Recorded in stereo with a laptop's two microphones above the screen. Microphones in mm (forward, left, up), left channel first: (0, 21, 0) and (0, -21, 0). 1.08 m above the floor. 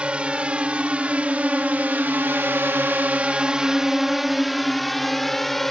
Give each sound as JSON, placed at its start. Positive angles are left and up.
{"t": 0.0, "sound": "a drone", "side_deg": -25}